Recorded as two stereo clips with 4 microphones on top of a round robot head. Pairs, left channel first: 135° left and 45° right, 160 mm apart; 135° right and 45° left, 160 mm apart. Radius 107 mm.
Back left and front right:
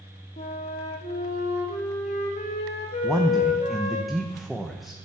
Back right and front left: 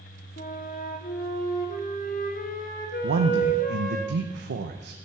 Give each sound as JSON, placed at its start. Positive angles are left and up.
{"t": 0.4, "sound": "a flute", "azimuth_deg": -175, "distance_m": 2.0}
{"t": 3.0, "sound": "a man speaking", "azimuth_deg": 45, "distance_m": 1.0}